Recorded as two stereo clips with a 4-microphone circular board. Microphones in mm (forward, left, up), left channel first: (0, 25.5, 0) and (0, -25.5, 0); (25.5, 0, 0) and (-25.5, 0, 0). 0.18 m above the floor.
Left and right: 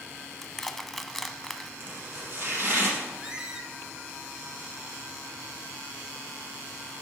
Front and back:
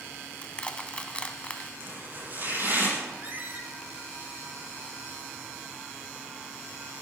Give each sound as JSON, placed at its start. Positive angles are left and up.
{"t": 0.4, "sound": "crushing", "azimuth_deg": 15, "distance_m": 0.7}
{"t": 1.8, "sound": "chopping", "azimuth_deg": -135, "distance_m": 5.0}
{"t": 3.2, "sound": "a squeak", "azimuth_deg": -155, "distance_m": 1.1}